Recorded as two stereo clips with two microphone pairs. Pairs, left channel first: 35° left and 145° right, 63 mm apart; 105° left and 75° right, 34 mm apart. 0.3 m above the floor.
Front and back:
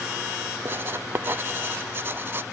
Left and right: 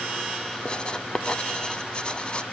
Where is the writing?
165° left, 0.6 m.